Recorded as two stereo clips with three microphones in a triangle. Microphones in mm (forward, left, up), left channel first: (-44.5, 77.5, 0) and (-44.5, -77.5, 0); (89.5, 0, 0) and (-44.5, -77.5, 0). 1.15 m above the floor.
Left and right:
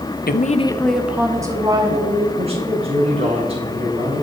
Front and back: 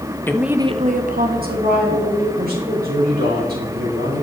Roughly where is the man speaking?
Behind right.